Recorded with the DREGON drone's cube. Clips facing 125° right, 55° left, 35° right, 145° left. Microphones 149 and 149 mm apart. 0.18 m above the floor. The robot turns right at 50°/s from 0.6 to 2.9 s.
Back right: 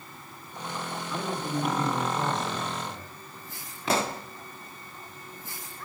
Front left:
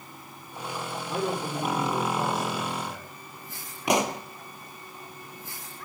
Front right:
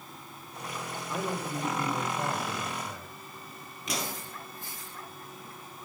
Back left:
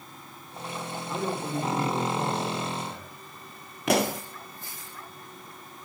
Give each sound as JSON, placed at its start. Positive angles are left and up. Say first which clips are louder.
{"t": 1.1, "sound": "a man speaking", "louder": "front left 3 dB, back left 3 dB", "azimuth_deg": 80, "distance_m": 7.5}
{"t": 3.9, "sound": "a pop", "louder": "front left 3 dB, back left 12 dB", "azimuth_deg": 130, "distance_m": 0.7}